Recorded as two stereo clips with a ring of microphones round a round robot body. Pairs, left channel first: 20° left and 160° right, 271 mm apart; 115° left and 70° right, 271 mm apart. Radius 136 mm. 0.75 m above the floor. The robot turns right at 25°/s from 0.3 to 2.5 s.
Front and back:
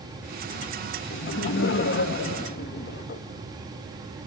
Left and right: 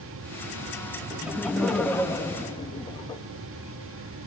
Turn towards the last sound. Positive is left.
turn(degrees=45)